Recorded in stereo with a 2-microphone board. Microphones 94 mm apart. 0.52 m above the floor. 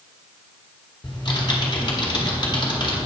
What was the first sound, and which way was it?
Typing on a keyboard, 50° left (ahead or behind).